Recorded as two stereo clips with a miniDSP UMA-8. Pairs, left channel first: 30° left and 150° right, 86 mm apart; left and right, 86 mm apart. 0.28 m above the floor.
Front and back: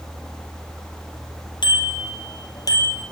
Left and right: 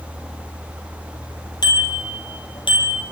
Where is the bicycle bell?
55° left, 4.5 m; by 3.0 s 80° left, 5 m.